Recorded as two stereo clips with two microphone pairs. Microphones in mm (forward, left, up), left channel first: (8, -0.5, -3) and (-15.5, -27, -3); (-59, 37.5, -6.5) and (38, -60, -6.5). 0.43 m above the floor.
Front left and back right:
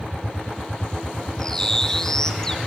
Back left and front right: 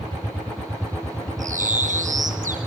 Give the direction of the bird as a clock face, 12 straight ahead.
1 o'clock.